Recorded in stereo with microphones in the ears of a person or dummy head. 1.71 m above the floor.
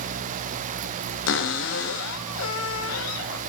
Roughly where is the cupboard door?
Left.